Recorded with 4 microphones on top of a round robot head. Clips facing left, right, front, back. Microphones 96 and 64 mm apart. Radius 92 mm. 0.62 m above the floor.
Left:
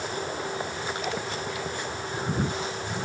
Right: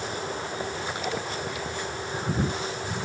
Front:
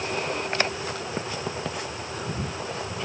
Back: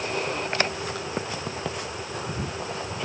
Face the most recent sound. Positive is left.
No sound to turn to.